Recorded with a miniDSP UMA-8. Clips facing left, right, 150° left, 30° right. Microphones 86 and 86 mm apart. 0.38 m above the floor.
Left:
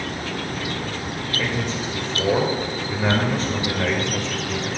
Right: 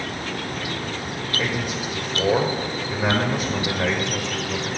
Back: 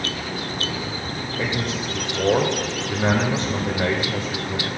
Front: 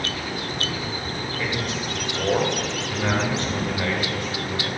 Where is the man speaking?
160° right, 1.0 m.